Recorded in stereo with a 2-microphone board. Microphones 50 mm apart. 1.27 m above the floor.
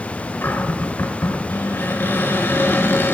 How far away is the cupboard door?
About 7 m.